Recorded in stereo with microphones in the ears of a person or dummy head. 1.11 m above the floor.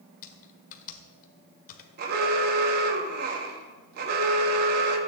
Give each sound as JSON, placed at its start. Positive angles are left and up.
{"t": 0.2, "sound": "typing on a keyboard", "side_deg": 50, "distance_m": 1.8}
{"t": 2.0, "sound": "an alarm", "side_deg": -55, "distance_m": 2.5}